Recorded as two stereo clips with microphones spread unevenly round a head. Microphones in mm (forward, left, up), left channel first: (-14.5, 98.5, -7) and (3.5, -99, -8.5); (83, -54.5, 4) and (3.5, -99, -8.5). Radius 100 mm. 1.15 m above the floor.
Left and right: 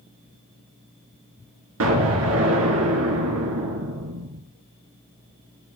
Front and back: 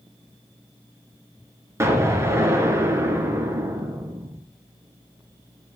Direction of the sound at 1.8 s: 90° right.